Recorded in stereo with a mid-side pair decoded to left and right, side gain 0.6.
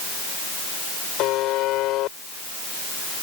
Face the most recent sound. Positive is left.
turn(degrees=65)